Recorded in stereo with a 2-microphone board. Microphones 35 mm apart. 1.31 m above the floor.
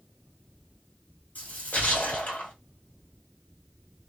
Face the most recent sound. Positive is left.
turn(degrees=55)  # may be behind; listen again after turning